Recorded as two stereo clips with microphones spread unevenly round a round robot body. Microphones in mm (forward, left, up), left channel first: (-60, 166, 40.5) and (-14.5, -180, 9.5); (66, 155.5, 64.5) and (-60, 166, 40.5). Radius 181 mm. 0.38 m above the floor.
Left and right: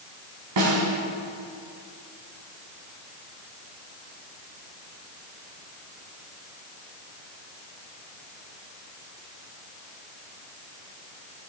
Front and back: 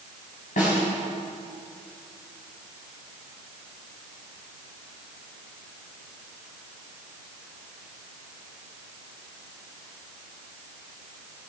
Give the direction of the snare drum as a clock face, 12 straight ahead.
1 o'clock.